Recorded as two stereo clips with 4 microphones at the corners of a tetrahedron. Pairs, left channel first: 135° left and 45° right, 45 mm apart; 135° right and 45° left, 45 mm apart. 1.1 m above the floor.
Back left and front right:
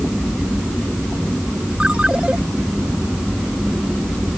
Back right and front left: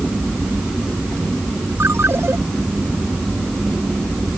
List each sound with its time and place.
1.8 s a ringtone: 20° left